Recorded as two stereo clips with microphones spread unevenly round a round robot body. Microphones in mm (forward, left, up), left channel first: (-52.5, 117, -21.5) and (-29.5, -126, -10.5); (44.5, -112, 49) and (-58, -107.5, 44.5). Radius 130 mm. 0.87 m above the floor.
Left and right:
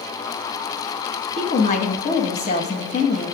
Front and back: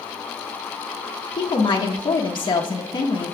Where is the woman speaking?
35° left, 1.1 m.